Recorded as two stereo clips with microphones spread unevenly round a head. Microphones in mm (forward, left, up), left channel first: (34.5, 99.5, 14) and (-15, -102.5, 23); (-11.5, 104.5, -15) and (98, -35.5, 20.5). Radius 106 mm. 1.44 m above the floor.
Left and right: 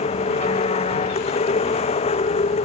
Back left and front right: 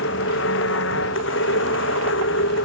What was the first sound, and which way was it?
A machine running, 140° left.